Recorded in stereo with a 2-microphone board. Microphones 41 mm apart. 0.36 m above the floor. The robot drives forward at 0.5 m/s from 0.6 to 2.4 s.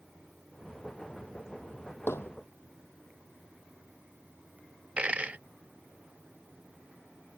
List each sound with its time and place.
2.1 s hammering: 80° left
5.0 s a dropped coin: 35° right (ahead or behind)